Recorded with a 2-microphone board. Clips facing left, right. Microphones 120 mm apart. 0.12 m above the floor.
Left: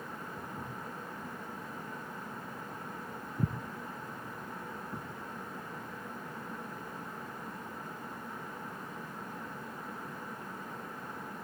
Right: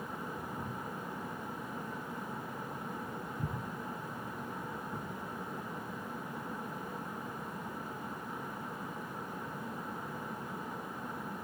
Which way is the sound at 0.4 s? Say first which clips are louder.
Right 2 dB; 20° left (ahead or behind).